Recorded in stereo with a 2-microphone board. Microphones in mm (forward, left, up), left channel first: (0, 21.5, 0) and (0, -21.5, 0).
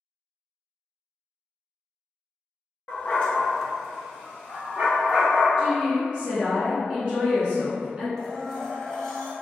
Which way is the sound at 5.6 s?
20° right (ahead or behind).